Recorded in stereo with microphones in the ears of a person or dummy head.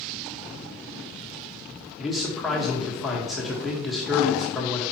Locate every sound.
2.0 s a man speaking: 5° right (ahead or behind), 1.6 m